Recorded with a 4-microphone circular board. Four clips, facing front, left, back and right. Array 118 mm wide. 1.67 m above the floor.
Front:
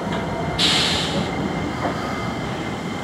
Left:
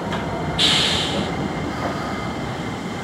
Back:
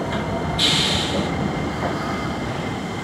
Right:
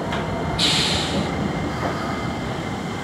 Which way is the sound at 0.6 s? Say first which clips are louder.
Left 1 dB, even; 30° left.